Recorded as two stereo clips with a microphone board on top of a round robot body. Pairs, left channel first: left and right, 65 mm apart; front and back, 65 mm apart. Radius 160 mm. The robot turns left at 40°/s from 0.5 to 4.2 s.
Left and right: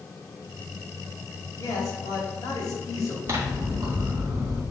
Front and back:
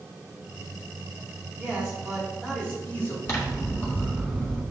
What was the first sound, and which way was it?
A man speaking, 115° left.